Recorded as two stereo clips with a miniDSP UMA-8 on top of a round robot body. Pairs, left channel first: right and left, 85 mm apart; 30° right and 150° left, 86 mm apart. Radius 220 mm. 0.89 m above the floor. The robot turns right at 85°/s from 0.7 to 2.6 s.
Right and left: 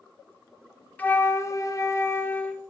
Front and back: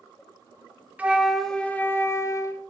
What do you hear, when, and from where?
1.0 s a flute: 150° right, 0.8 m; by 2.6 s 15° right, 0.8 m